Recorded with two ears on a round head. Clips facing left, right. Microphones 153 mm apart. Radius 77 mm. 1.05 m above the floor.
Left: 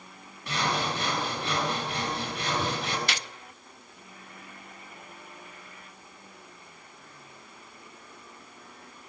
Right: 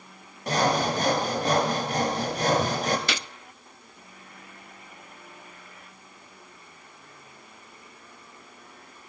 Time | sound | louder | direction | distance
0.5 | sawing | right 6 dB | 35° right (ahead or behind) | 3.5 m
3.1 | a gunshot | right 3 dB | 70° right (ahead or behind) | 0.5 m